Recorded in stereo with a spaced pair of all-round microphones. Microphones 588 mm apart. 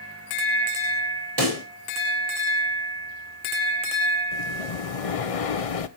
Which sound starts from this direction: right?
A pop, at 1.4 s.